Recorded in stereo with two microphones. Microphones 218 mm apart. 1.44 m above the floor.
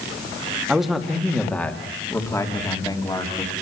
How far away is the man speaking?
About 2.5 m.